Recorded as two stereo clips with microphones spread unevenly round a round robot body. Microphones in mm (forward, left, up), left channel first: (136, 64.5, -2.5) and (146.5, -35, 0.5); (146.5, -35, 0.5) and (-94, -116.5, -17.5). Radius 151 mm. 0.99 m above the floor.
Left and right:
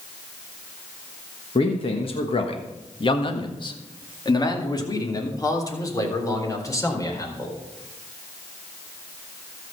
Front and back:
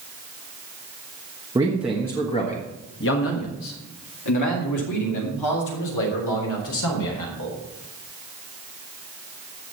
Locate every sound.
1.6 s a man speaking: 125° left, 1.2 m; by 7.6 s 35° left, 4.5 m